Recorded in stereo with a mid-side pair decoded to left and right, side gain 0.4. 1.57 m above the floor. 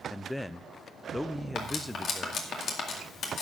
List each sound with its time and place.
0.1 s a man speaking: 10° left, 0.6 m
1.6 s cutlery clinking: 65° left, 2 m